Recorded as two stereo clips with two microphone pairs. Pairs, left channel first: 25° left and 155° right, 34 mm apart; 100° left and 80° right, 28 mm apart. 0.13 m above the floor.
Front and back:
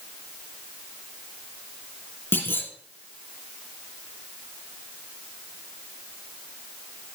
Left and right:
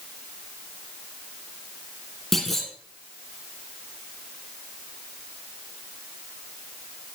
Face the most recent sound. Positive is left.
turn(degrees=20)